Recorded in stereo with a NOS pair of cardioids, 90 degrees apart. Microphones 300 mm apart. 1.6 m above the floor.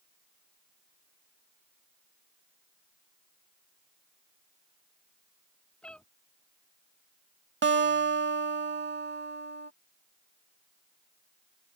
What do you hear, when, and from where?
5.8 s a cat meowing: 5° left
7.6 s a guitar: 40° right